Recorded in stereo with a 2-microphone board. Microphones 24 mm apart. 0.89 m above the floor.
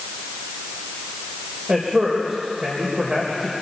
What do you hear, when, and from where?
1.7 s a man speaking: 40° right (ahead or behind), 4 m